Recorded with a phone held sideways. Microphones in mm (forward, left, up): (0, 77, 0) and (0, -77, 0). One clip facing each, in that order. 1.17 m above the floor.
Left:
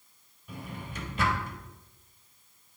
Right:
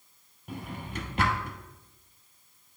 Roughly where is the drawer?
Right.